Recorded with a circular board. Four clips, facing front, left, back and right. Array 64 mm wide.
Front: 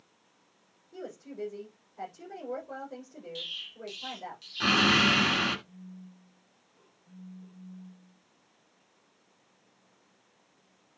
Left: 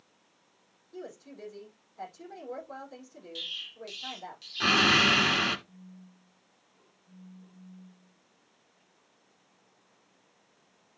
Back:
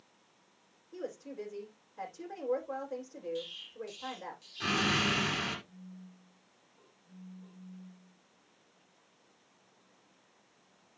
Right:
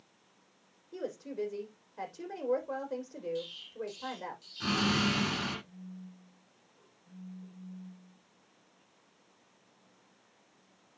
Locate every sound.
0.9 s a woman speaking: 100° right, 7.5 m
3.4 s an explosion: 45° left, 1.6 m
5.7 s a phone buzzing: 125° right, 7 m